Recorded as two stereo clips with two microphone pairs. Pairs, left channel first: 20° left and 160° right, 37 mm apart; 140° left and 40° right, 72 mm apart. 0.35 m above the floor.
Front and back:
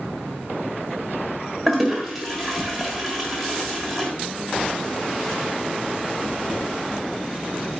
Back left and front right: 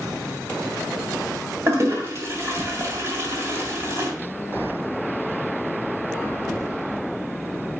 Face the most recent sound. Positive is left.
turn(degrees=-65)